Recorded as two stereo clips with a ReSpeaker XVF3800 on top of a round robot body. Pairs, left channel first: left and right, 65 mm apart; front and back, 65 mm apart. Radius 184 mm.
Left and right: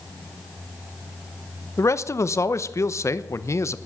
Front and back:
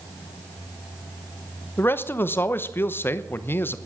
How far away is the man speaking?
About 1.1 m.